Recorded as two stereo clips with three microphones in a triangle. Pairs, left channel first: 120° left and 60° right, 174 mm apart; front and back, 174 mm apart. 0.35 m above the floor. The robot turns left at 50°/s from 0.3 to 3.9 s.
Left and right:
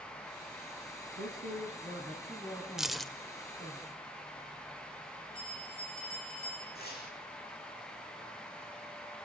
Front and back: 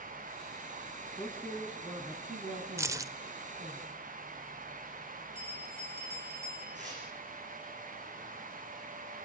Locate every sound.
1.2 s a man speaking: 70° right, 3 m; by 3.8 s 160° left, 3 m
2.8 s keys jangling: 140° right, 0.6 m; by 3.1 s 155° right, 0.6 m
5.3 s a bell: 130° right, 5 m
6.8 s tearing paper: 140° left, 9 m